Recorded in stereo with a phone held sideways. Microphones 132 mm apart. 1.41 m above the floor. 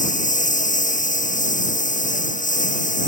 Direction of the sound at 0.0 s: 70° left (ahead or behind).